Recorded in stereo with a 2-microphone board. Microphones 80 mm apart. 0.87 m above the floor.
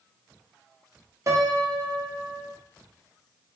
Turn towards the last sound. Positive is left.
turn(degrees=-45)  # may be behind; listen again after turning